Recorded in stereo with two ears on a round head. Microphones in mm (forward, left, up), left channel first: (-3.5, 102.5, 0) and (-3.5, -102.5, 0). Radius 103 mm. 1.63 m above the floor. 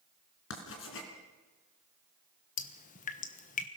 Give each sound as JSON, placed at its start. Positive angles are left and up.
{"t": 0.5, "sound": "writing", "side_deg": 60, "distance_m": 3.5}
{"t": 2.6, "sound": "dripping", "side_deg": 35, "distance_m": 1.2}